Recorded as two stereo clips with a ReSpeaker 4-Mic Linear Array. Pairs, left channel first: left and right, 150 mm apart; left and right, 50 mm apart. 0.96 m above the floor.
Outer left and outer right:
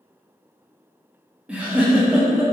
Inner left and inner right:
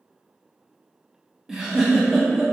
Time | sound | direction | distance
1.5 | a giggle | 10° right (ahead or behind) | 0.5 m